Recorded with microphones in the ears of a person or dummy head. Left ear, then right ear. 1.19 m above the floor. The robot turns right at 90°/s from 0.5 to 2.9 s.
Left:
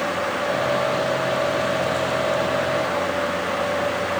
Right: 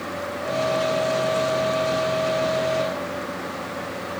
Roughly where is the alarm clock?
No alarm clock in this recording.